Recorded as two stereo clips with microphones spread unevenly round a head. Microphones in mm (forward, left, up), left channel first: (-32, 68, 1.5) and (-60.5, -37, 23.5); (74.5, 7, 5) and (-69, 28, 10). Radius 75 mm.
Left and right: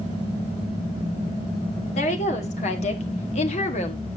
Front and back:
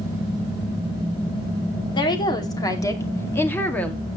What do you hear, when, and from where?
1.9 s a woman speaking: 50° left, 2.5 m; by 4.0 s 75° left, 1.9 m